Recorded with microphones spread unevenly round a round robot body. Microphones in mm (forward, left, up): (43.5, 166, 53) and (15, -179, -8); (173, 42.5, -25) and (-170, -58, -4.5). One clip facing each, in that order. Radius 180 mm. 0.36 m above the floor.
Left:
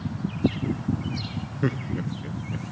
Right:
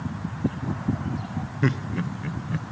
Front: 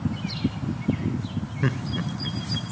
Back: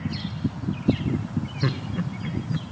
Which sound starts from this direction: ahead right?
Laughter, at 1.6 s.